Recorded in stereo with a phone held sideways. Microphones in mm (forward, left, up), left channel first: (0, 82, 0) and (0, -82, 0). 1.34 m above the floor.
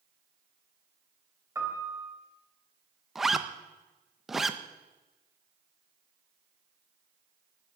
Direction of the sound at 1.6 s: 20° right (ahead or behind).